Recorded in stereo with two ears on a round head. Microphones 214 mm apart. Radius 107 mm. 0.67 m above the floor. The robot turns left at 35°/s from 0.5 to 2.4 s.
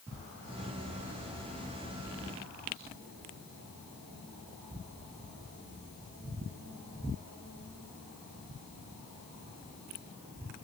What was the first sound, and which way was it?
Only background noise.